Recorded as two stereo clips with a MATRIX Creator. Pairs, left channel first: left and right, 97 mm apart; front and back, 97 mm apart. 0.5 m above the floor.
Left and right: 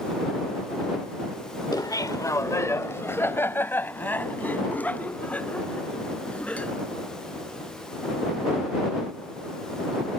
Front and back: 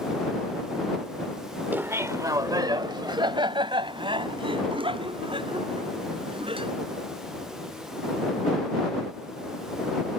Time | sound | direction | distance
1.7 | laughter | 115° left | ?